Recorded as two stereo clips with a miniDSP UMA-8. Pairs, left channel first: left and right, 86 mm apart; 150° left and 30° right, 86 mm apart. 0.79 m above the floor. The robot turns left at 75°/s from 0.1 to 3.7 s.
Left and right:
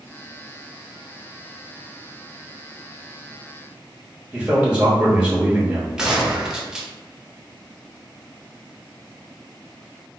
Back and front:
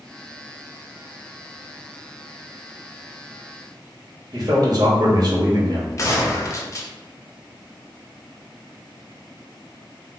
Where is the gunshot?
170° right, 0.6 m.